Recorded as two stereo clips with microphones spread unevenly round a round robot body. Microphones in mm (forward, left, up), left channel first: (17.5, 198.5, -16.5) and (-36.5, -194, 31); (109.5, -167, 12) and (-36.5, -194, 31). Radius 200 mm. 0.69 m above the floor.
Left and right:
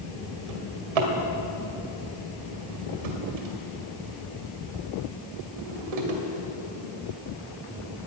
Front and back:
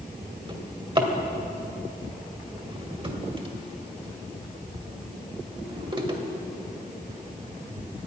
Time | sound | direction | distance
0.5 | a drawer | 115° right | 2.5 m